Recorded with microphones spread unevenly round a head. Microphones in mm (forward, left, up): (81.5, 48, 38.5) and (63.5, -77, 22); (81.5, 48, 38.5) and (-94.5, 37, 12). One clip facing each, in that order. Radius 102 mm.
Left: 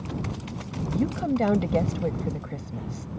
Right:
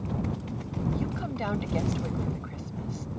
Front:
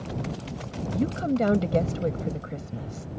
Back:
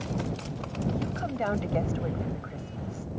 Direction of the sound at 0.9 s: 45° left.